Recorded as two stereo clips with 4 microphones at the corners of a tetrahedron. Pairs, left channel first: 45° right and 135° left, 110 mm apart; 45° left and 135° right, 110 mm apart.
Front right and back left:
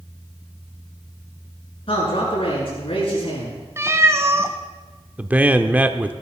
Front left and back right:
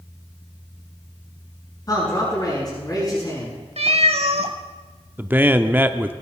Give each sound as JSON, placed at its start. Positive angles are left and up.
{"t": 1.9, "sound": "a man speaking", "azimuth_deg": -10, "distance_m": 7.0}
{"t": 3.8, "sound": "a cat meowing", "azimuth_deg": -160, "distance_m": 1.0}
{"t": 5.2, "sound": "a man speaking", "azimuth_deg": -175, "distance_m": 0.7}